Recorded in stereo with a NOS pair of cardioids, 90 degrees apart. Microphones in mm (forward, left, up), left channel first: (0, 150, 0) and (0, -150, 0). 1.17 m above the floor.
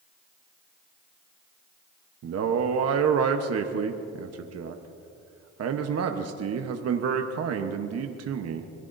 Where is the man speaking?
60° right, 1.1 m.